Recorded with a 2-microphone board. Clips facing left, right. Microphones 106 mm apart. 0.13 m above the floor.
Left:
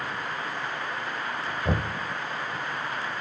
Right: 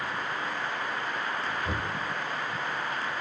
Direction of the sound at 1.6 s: 40° left (ahead or behind).